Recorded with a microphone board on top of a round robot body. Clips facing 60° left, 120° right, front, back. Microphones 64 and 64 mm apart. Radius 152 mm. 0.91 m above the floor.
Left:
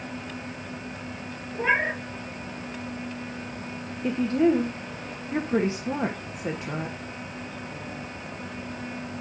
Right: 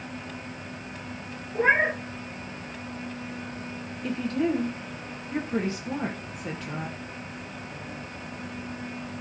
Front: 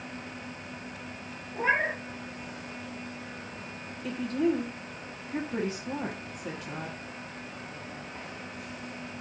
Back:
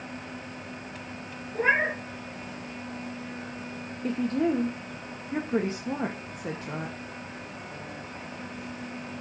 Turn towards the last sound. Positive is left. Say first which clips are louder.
# left 5 dB, back 2 dB
turn(degrees=125)